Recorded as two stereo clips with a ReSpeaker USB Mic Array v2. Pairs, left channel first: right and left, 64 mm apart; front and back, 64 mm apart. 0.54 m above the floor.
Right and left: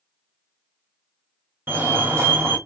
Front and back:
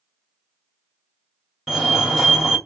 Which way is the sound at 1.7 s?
80° left.